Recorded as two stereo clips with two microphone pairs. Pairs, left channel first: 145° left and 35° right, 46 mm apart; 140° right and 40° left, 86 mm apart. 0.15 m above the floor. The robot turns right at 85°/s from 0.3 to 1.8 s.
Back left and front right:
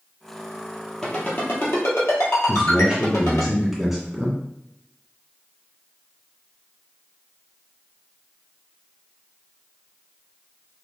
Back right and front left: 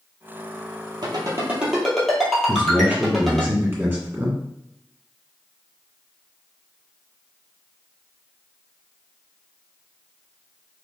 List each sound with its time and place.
1.0 s a ringtone: 65° left, 1.6 m; by 3.5 s 130° left, 1.6 m
2.5 s a man speaking: 35° left, 1.7 m